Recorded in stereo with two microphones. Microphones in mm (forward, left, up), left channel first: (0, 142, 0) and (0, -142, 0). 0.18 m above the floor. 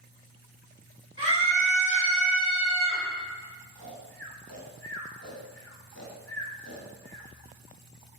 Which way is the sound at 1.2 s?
45° left (ahead or behind).